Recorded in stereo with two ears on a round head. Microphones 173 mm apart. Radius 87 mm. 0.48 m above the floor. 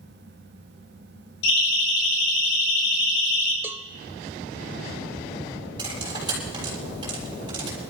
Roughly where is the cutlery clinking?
Right.